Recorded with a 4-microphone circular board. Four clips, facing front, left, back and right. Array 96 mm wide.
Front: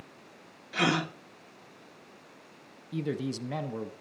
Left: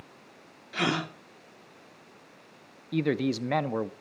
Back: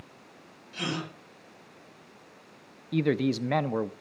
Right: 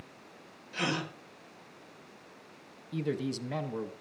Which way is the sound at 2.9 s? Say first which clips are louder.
Left 6 dB, back 7 dB; 135° left.